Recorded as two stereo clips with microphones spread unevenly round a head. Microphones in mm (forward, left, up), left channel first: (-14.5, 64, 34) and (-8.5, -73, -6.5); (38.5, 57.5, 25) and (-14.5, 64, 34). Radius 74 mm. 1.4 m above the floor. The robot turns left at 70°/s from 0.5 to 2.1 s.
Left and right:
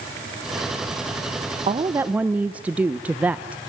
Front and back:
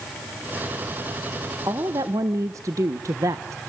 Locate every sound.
1.7 s a woman speaking: 145° right, 0.7 m; by 3.6 s 175° right, 0.7 m